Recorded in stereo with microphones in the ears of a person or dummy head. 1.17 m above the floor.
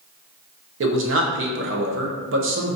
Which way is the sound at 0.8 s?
55° right (ahead or behind).